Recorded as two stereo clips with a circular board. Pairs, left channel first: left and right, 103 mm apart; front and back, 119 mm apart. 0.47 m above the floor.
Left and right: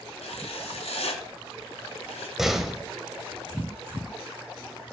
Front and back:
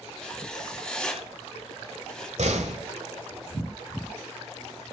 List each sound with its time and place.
0.2 s writing: 80° left, 1.8 m
2.4 s a door slam: 175° right, 1.3 m